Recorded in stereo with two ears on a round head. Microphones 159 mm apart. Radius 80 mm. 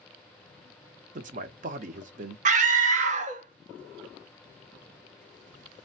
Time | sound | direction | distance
1.1 | a man speaking | 45° right (ahead or behind) | 0.7 m
2.5 | a scream | 40° right (ahead or behind) | 0.7 m